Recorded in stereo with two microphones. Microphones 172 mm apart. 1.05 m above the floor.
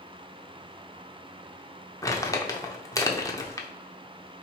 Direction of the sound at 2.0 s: 20° left (ahead or behind).